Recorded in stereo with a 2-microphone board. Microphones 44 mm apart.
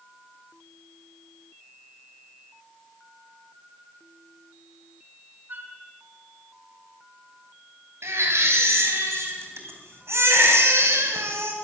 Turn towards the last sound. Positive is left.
turn(degrees=-75)  # may be behind; listen again after turning